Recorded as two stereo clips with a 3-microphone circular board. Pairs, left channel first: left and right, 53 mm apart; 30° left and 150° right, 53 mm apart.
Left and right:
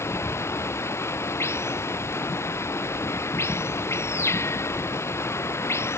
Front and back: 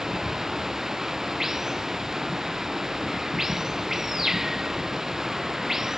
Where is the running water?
130° left.